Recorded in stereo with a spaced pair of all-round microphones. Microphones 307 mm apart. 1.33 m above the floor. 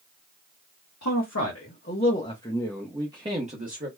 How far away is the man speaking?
About 1.1 m.